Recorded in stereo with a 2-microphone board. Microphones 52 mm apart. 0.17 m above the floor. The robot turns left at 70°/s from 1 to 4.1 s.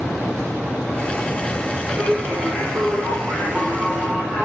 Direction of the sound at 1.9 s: 30° right.